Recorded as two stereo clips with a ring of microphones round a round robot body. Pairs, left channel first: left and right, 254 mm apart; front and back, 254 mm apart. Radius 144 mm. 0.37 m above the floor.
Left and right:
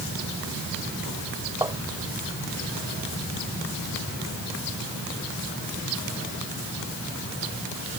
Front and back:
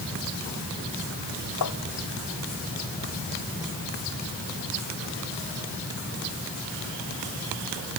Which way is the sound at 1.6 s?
15° right.